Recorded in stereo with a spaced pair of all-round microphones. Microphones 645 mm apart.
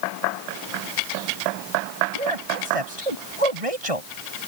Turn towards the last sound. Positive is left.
turn(degrees=-60)  # may be behind; listen again after turning